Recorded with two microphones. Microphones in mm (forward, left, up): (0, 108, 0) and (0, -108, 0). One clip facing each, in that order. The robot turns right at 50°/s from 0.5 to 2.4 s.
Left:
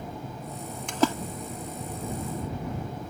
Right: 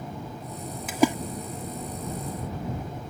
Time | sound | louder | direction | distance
0.9 | a splash | right 3 dB | 5° right (ahead or behind) | ?